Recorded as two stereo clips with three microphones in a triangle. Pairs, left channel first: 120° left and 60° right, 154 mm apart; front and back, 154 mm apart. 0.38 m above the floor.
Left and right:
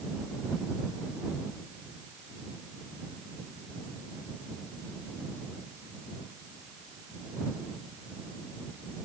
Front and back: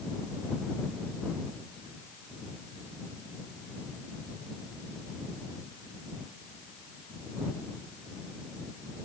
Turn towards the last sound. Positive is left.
No sound to turn to.